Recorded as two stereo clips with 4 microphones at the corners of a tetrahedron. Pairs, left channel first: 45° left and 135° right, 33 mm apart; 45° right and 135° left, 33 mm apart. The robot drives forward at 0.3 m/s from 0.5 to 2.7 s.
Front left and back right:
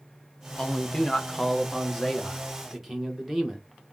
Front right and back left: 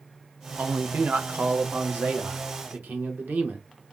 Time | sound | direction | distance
0.6 | a man speaking | 105° left | 0.6 m